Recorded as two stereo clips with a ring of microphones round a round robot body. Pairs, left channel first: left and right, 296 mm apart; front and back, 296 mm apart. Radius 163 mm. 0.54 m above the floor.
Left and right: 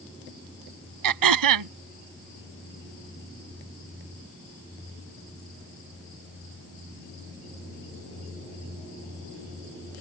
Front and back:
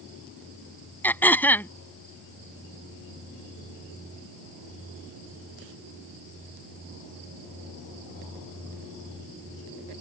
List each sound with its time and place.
1.0 s throat clearing: 85° right